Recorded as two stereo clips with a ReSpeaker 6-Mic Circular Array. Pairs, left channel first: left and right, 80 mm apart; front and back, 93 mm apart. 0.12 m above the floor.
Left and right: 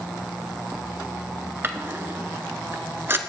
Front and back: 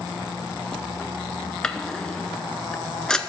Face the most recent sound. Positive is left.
turn(degrees=-75)